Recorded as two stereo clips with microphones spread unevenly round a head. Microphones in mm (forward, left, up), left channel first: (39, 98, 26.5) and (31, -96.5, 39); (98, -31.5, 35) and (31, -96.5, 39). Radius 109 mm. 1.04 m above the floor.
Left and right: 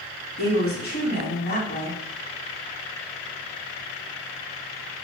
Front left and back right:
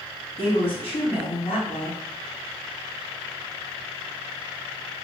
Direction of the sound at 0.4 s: 50° left.